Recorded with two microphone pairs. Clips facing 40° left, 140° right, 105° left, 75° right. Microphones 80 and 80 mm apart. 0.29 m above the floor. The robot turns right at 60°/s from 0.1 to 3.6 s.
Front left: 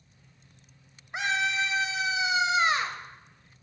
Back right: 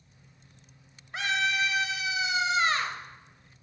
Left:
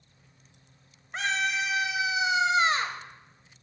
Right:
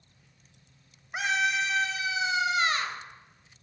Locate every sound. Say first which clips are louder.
1.1 s a scream: even, right 1 dB; 5° right, 0.9 m; by 3.0 s 105° left, 0.9 m